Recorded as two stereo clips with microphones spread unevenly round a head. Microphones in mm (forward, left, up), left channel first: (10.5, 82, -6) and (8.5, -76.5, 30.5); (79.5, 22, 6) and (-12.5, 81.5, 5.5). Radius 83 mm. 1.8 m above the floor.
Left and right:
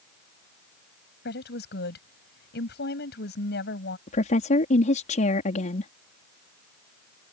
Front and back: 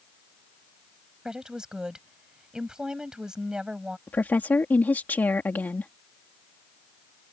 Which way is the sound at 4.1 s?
40° left.